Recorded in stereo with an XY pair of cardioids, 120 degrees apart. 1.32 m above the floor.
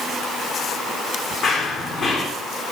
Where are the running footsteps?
50° left, 5.5 m.